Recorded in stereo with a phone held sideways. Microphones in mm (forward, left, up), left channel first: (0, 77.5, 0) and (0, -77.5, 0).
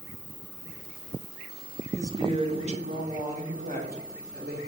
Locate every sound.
2.0 s a woman speaking: 20° right (ahead or behind), 0.5 m; by 4.6 s 70° right (ahead or behind), 1.6 m